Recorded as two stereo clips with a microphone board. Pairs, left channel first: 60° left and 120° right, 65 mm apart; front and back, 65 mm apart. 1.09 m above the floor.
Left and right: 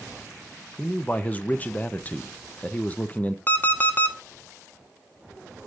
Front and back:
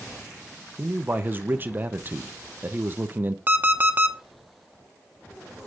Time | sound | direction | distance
0.8 | a man speaking | 125° left | 0.9 m
3.5 | an alarm clock | 120° left | 0.9 m